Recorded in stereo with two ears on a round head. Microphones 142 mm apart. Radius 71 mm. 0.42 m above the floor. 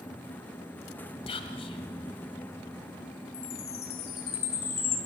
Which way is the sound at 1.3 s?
35° left (ahead or behind).